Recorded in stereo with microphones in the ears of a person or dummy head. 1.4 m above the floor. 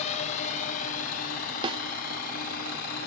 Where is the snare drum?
25° right (ahead or behind).